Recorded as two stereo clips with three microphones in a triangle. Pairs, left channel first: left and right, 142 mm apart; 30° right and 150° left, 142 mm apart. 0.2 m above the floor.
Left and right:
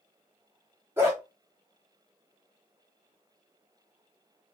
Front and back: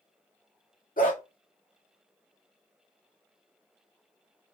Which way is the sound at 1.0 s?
15° right.